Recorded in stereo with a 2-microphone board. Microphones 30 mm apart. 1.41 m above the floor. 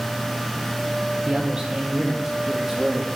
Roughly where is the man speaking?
Right.